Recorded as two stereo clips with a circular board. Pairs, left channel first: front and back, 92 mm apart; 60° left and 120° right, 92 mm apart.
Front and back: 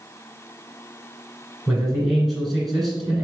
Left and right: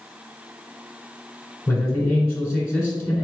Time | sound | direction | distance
1.7 | a man speaking | 85° left | 1.6 m